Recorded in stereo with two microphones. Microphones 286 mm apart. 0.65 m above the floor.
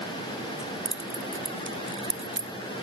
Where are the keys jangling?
45° right (ahead or behind), 0.5 m.